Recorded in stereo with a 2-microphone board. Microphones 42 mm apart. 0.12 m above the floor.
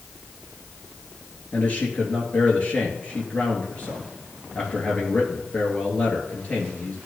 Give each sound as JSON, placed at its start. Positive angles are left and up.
{"t": 1.5, "sound": "a man speaking", "side_deg": 35, "distance_m": 2.0}